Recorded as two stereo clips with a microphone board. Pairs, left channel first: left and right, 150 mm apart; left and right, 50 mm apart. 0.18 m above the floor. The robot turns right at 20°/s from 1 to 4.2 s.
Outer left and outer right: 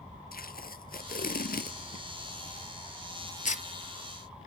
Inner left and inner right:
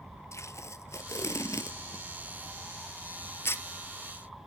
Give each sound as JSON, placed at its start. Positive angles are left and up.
{"t": 0.3, "sound": "tape being pulled", "side_deg": 70, "distance_m": 1.0}